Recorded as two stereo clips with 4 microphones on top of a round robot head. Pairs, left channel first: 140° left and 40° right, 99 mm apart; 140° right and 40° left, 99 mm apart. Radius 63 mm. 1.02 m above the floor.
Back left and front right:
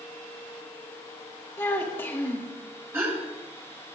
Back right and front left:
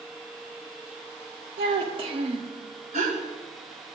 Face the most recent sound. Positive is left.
turn(degrees=30)